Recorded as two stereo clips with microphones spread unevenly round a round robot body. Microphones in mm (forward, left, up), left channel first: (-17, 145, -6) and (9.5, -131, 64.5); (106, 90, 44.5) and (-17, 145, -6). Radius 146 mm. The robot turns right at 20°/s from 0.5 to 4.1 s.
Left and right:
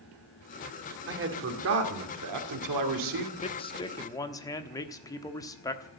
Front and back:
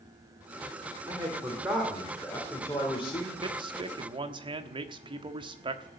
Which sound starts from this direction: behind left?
A man speaking, at 3.4 s.